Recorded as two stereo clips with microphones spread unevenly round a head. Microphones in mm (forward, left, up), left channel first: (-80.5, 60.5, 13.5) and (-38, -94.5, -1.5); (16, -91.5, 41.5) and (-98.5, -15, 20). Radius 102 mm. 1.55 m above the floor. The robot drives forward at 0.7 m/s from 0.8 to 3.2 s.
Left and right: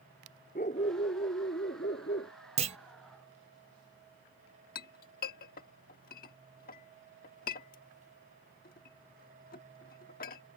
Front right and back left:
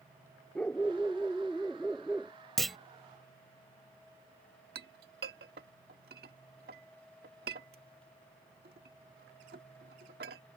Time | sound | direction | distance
0.6 | a dog barking | 50° left | ?
2.6 | a clunk | 115° right | ?
4.8 | a clink | 105° left | ?